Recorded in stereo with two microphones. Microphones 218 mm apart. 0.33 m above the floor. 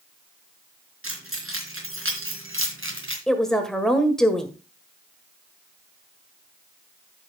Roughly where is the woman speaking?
Centre.